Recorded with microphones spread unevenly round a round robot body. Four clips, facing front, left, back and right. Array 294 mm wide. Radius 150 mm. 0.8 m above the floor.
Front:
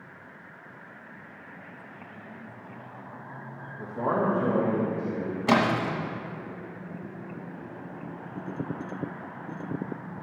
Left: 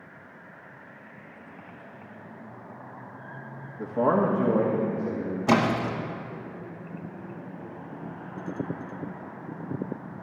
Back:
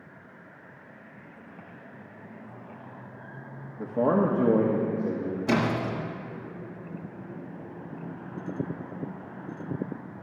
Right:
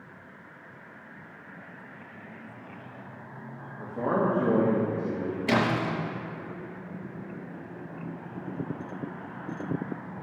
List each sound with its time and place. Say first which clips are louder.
3.8 s a man speaking: left 4 dB, back 3 dB; 130° left, 1.0 m; by 5.4 s 155° right, 1.9 m
5.5 s a splash: left 3 dB, front 3 dB; 55° left, 1.4 m